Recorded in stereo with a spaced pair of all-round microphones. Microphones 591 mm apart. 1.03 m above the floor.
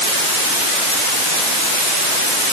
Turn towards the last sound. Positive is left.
No sound to turn to.